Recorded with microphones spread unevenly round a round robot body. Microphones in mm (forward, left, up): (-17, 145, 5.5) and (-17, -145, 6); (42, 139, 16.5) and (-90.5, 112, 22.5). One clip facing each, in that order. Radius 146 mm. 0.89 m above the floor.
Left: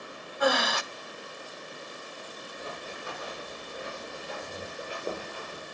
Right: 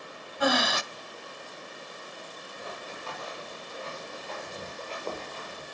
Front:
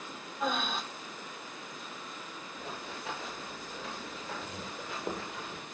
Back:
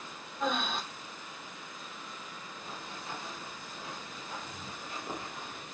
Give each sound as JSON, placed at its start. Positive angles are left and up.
{"t": 0.4, "sound": "breathing", "azimuth_deg": -80, "distance_m": 0.8}
{"t": 2.6, "sound": "running footsteps", "azimuth_deg": 15, "distance_m": 9.0}